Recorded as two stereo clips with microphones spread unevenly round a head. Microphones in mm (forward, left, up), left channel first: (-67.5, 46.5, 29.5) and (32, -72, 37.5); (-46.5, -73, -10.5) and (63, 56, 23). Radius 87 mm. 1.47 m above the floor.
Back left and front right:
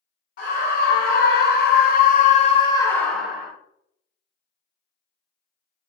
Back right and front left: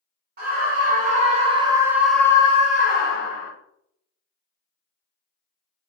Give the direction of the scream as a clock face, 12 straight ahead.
9 o'clock.